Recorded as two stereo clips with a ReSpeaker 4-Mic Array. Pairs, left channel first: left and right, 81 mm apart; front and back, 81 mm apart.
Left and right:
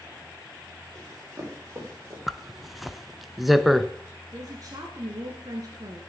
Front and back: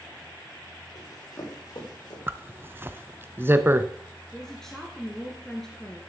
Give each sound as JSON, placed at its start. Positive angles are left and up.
{"t": 0.9, "sound": "running footsteps", "azimuth_deg": -40, "distance_m": 4.5}
{"t": 2.3, "sound": "a zipper", "azimuth_deg": -175, "distance_m": 0.5}
{"t": 4.3, "sound": "a woman speaking", "azimuth_deg": -80, "distance_m": 1.6}